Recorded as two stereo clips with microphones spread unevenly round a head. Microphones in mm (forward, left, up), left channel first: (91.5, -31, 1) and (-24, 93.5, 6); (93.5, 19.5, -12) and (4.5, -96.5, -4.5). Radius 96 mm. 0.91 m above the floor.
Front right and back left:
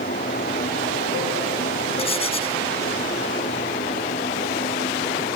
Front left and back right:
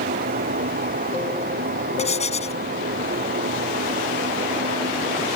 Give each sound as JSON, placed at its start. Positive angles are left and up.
{"t": 0.0, "sound": "a fan", "azimuth_deg": -105}
{"t": 2.0, "sound": "writing", "azimuth_deg": 10}